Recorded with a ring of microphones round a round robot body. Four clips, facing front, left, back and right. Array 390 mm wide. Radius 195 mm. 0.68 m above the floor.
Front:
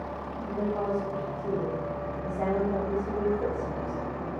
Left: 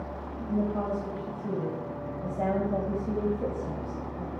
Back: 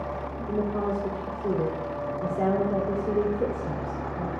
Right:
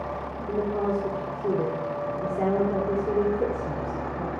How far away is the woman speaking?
About 1.9 m.